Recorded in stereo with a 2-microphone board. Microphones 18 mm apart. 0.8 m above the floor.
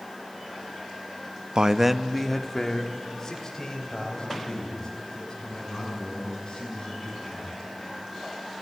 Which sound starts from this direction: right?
A man speaking, at 1.6 s.